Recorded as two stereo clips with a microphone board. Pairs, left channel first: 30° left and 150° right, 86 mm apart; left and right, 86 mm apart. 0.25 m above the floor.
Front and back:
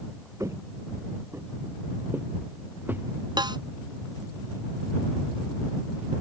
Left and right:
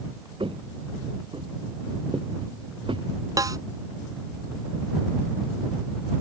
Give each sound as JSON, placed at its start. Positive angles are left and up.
{"t": 0.4, "sound": "footsteps", "azimuth_deg": -95}
{"t": 3.4, "sound": "a snare drum", "azimuth_deg": -130}